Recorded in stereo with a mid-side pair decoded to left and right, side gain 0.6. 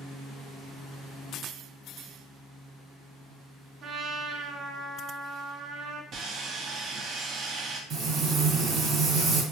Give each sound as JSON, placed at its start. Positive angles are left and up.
{"t": 3.8, "sound": "a trumpet", "azimuth_deg": -45, "distance_m": 0.6}
{"t": 6.1, "sound": "sawing", "azimuth_deg": -50, "distance_m": 0.7}
{"t": 7.9, "sound": "frying", "azimuth_deg": -60, "distance_m": 1.1}